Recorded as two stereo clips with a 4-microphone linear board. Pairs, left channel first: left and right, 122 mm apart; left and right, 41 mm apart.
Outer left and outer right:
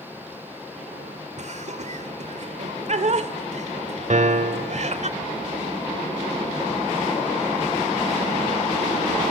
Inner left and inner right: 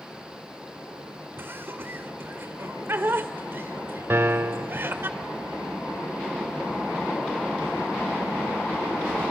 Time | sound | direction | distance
1.4 | laughter | 60° right (ahead or behind) | 1.9 m
4.1 | a piano | 70° right (ahead or behind) | 1.1 m